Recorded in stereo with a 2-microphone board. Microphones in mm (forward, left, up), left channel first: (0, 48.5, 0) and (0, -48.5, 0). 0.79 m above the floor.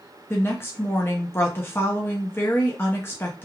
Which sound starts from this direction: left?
A woman speaking, at 0.3 s.